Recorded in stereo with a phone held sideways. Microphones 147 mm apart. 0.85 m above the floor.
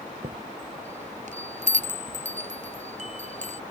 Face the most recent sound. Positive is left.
turn(degrees=-55)  # may be behind; listen again after turning